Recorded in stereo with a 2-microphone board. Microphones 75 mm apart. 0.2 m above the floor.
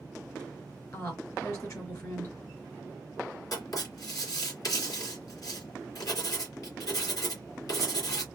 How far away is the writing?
About 2.5 m.